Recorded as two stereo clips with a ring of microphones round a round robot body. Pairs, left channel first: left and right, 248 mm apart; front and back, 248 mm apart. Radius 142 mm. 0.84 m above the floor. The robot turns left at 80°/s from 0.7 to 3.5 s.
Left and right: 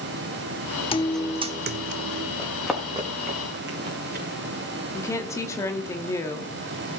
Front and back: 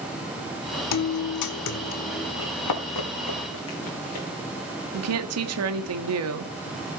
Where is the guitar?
20° left, 1.2 m; by 2.3 s 90° right, 1.2 m.